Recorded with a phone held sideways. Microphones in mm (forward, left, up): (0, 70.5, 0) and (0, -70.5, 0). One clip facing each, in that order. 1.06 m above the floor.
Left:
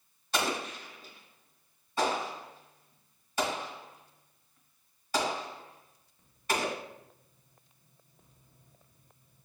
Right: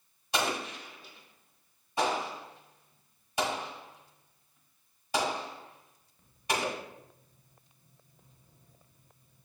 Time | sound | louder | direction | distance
0.3 | an explosion | even | 15° right (ahead or behind) | 1.6 m